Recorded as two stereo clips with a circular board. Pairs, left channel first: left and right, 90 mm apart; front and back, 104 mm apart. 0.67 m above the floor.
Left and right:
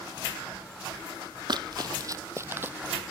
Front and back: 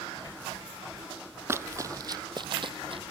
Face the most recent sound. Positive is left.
turn(degrees=-165)